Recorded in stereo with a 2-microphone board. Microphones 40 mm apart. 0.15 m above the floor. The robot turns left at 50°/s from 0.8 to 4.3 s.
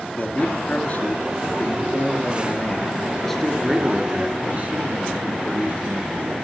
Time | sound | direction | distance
0.2 | a man speaking | 135° left | 1.8 m